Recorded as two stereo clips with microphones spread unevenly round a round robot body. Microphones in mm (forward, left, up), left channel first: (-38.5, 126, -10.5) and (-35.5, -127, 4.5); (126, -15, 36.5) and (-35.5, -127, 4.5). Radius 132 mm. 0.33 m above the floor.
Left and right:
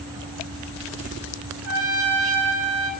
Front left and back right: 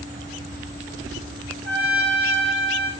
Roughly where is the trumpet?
Behind right.